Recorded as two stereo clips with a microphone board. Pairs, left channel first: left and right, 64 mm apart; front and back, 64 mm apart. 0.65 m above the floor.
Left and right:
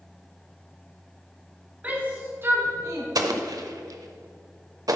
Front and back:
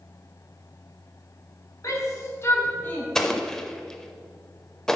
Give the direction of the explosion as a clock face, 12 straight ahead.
3 o'clock.